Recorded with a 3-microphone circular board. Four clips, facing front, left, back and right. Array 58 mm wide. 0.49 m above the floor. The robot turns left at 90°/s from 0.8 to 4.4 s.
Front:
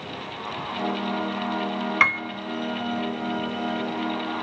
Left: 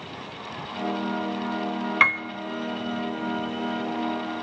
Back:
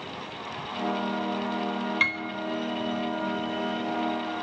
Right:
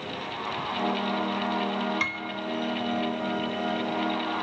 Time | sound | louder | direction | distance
2.0 | a piano | left 9 dB, front 7 dB | 45° left | 0.6 m